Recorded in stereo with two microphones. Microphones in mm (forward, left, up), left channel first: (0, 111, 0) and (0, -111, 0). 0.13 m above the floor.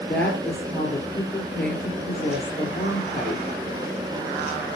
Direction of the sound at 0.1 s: 5° left (ahead or behind).